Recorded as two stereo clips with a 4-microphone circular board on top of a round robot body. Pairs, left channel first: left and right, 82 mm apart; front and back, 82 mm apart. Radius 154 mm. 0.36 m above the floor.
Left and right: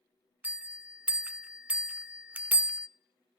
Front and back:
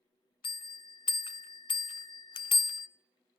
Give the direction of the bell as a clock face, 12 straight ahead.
1 o'clock.